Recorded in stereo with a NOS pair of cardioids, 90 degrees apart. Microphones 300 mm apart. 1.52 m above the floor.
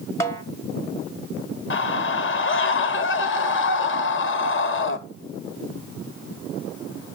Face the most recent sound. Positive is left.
turn(degrees=40)